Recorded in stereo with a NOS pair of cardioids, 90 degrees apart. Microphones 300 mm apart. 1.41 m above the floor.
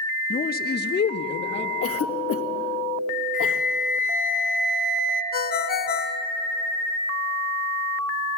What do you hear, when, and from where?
0.3 s a man speaking: 30° left, 1.0 m; by 1.7 s 40° left, 2 m
1.8 s a cough: 45° left, 2.0 m
3.3 s a flute: 25° left, 1.3 m
5.3 s a ringtone: 35° left, 1.0 m